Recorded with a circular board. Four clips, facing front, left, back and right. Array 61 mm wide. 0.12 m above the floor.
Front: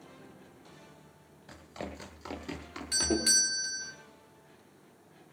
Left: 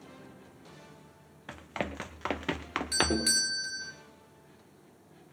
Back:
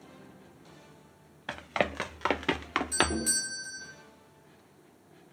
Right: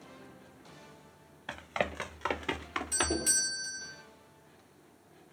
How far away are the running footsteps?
About 1.4 m.